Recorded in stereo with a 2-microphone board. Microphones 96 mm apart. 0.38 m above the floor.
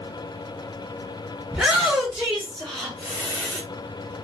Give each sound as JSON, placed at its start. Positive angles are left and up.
{"t": 1.5, "sound": "a shout", "side_deg": -5, "distance_m": 1.0}